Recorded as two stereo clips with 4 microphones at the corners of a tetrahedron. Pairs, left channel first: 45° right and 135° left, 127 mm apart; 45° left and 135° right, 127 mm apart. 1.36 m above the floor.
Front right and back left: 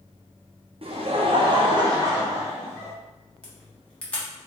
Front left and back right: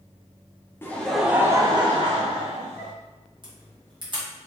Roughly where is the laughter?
Behind left.